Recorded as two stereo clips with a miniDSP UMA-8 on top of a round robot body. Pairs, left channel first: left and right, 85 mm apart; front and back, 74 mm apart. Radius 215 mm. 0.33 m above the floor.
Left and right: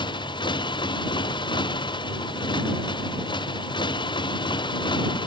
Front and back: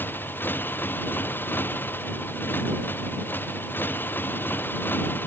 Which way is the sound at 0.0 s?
65° left.